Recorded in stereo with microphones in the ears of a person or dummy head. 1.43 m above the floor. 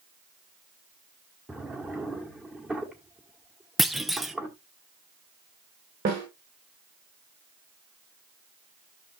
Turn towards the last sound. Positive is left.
turn(degrees=-50)  # may be behind; listen again after turning